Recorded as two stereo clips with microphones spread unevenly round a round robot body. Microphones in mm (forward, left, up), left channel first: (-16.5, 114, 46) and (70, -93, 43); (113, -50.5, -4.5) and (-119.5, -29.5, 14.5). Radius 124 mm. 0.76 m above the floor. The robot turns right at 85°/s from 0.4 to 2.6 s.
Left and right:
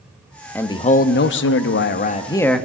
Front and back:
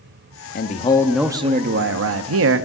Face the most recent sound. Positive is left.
turn(degrees=-155)